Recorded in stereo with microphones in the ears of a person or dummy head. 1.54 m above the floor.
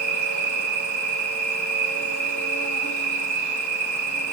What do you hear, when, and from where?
0.0 s an insect: 15° left (ahead or behind), 8.5 m